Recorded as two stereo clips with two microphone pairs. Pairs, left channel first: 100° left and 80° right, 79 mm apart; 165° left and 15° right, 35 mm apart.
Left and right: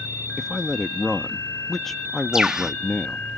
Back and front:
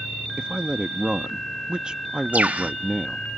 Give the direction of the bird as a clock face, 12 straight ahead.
12 o'clock.